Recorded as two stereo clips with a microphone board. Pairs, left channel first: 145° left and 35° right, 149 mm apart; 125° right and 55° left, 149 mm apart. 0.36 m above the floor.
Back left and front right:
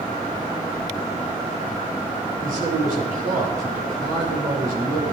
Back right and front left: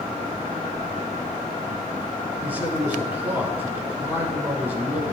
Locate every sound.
2.4 s a man speaking: 20° right, 5 m